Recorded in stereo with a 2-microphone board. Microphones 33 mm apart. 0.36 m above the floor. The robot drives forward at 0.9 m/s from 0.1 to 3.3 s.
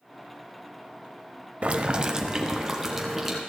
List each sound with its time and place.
1.6 s boiling: 40° right (ahead or behind), 0.6 m; by 3.4 s 10° right (ahead or behind), 1.9 m